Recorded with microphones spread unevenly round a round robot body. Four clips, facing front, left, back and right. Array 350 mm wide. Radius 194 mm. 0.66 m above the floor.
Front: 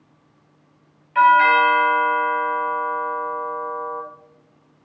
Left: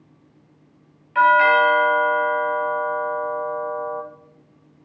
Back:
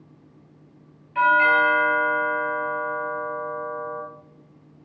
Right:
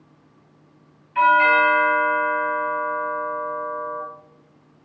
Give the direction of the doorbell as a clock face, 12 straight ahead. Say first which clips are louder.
Left 1 dB, front 5 dB; 9 o'clock.